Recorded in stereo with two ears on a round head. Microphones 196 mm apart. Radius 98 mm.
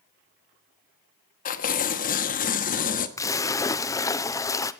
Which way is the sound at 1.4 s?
35° left (ahead or behind).